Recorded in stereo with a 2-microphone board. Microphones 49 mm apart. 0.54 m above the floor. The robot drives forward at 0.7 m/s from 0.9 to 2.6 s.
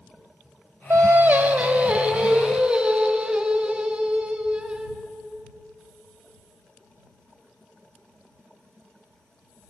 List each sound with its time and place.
0.9 s singing: 60° right (ahead or behind), 0.7 m; by 5.0 s 20° right (ahead or behind), 1.7 m